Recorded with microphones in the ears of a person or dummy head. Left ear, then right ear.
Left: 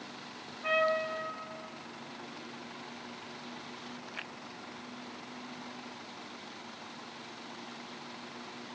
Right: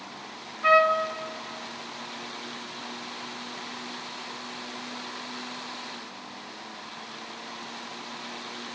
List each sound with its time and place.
0.6 s a trumpet: 65° right (ahead or behind), 1.7 m